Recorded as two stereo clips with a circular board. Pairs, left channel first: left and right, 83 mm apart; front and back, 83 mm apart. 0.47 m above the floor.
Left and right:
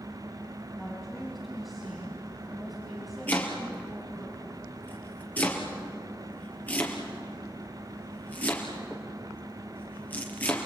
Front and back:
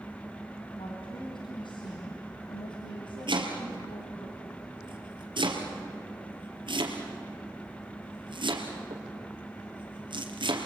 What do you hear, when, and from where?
0.8 s a woman speaking: straight ahead, 3 m
3.3 s chopping: 160° left, 3 m